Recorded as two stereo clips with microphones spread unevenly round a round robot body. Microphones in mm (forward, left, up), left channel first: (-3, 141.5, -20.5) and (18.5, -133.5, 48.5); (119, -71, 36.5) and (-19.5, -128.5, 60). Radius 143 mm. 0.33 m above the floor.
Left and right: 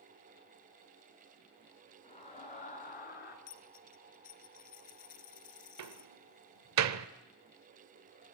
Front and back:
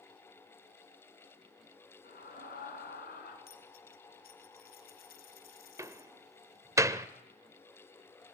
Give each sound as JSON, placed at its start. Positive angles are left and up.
{"t": 2.0, "sound": "a scream", "azimuth_deg": 30, "distance_m": 4.0}
{"t": 3.5, "sound": "a dropped coin", "azimuth_deg": 35, "distance_m": 1.8}
{"t": 5.8, "sound": "a door slam", "azimuth_deg": -85, "distance_m": 1.0}